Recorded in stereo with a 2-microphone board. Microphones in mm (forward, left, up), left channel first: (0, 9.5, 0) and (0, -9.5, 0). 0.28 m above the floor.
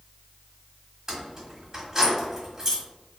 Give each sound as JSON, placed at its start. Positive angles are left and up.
{"t": 1.1, "sound": "keys jangling", "side_deg": -25, "distance_m": 1.1}